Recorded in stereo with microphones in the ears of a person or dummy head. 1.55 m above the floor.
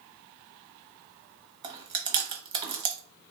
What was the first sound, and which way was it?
Chewing, 35° right (ahead or behind).